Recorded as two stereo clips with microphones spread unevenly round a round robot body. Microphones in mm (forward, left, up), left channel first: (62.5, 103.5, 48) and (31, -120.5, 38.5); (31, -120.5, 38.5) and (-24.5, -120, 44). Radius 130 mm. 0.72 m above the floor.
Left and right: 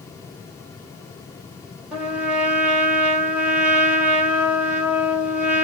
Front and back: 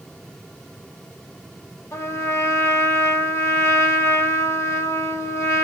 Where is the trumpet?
15° right, 1.6 m.